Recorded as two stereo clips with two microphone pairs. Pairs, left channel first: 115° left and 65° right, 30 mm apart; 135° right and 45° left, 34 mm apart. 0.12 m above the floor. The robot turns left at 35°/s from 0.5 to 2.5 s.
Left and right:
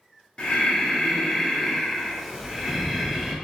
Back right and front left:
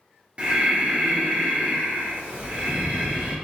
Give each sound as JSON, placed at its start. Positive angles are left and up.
{"t": 0.4, "sound": "breathing", "azimuth_deg": 75, "distance_m": 1.3}